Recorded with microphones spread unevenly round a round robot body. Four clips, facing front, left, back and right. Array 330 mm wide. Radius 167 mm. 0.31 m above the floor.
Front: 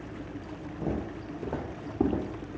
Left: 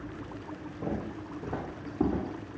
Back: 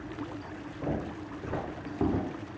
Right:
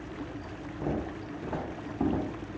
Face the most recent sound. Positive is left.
turn(degrees=25)